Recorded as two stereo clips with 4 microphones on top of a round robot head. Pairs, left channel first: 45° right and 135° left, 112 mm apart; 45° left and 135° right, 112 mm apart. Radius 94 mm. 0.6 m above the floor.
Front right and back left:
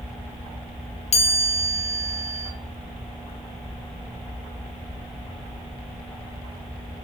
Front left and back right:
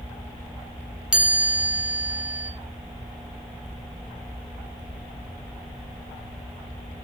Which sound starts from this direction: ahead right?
A chime, at 1.1 s.